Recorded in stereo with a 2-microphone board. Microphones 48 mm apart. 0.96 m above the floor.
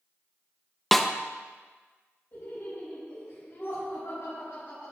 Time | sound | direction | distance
0.9 | a snare drum | 5° left (ahead or behind) | 0.5 m
2.3 | laughter | 65° left (ahead or behind) | 4.5 m